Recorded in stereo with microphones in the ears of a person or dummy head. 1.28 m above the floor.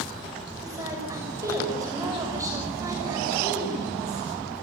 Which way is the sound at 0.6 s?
20° right (ahead or behind).